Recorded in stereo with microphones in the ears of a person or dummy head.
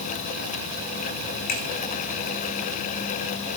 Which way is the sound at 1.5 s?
50° left (ahead or behind).